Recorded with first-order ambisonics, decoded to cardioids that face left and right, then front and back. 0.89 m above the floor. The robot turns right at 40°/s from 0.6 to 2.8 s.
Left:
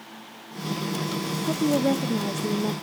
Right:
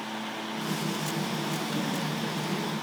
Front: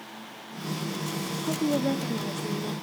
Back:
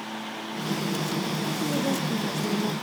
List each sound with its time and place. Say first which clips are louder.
1.4 s a woman speaking: left 8 dB, front 3 dB; 65° left, 0.7 m; by 2.7 s 115° left, 0.7 m